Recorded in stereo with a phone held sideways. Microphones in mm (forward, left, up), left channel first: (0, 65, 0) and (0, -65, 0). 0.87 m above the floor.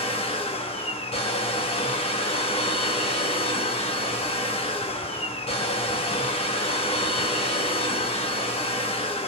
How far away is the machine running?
About 0.7 m.